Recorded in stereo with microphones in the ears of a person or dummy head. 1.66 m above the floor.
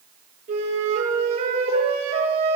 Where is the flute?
40° right (ahead or behind), 9.5 m.